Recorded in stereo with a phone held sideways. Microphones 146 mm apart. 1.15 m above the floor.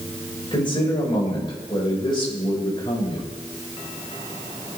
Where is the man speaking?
35° left (ahead or behind), 6 m.